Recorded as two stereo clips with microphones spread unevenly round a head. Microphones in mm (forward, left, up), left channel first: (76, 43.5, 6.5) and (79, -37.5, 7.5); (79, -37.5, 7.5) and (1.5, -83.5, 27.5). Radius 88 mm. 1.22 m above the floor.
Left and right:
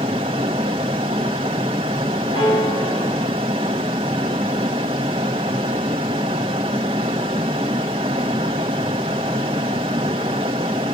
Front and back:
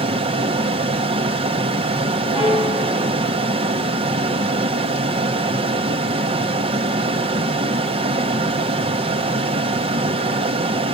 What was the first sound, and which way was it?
A fan, 140° right.